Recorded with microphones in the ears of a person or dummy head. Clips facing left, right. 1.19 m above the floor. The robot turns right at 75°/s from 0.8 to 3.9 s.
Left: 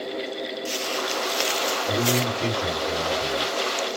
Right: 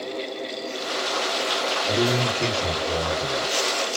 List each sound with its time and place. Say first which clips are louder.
1.9 s a man speaking: right 2 dB; 115° right, 1.2 m; by 3.5 s 10° left, 1.2 m